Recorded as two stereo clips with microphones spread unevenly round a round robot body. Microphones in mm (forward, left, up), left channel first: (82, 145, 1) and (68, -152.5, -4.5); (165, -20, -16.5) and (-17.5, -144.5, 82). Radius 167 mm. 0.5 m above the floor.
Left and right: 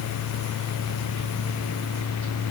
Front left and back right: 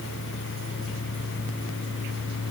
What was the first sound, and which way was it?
Only background noise.